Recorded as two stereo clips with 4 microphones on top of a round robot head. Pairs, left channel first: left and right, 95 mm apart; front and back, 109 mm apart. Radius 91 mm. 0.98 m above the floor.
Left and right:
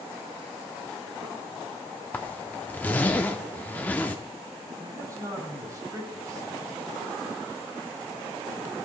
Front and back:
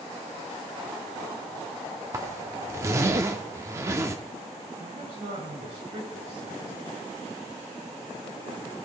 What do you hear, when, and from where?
2.1 s a zipper: 145° left, 0.5 m
4.8 s a man speaking: 145° right, 5 m